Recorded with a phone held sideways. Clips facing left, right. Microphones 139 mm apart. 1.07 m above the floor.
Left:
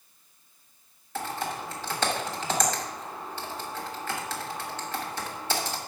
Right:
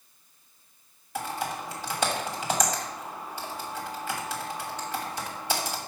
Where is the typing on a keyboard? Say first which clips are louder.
Even; 15° right (ahead or behind), 1.2 m.